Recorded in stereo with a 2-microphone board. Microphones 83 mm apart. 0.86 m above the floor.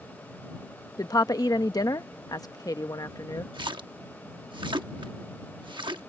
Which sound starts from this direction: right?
A splash, at 3.5 s.